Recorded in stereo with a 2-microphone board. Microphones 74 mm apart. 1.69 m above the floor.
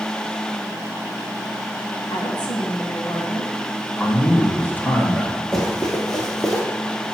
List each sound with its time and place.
2.1 s a woman speaking: 70° left (ahead or behind), 1.3 m
4.0 s a man speaking: 20° left (ahead or behind), 1.5 m
5.5 s running footsteps: 10° left (ahead or behind), 2.0 m; by 6.6 s centre (ahead or behind), 1.8 m